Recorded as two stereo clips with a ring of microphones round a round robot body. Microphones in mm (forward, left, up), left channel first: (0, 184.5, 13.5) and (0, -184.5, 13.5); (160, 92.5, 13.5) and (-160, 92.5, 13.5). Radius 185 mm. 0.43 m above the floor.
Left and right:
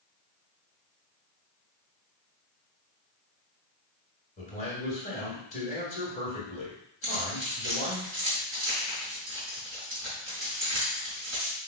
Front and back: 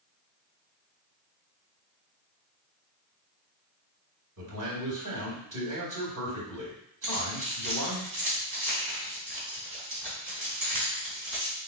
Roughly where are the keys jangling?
Behind right.